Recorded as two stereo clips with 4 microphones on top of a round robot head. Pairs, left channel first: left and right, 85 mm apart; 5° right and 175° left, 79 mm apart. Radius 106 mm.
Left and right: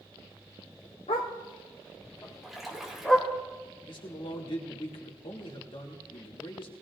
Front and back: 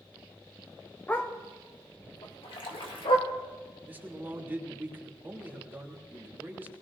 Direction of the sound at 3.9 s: 105° left.